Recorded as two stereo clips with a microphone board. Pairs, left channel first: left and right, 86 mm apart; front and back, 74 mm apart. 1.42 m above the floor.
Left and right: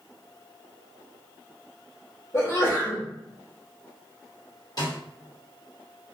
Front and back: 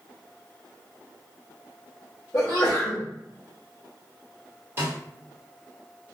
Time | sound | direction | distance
2.3 | a sneeze | 50° left | 0.8 m
4.8 | a snare drum | 125° left | 1.4 m